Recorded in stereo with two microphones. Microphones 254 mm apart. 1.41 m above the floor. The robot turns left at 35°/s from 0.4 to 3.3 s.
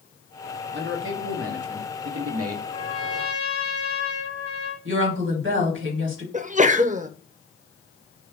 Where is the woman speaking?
50° right (ahead or behind), 1.6 m.